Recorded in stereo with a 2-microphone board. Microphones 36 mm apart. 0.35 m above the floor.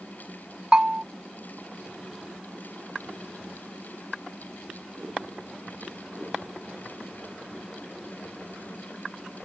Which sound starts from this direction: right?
A bell, at 0.7 s.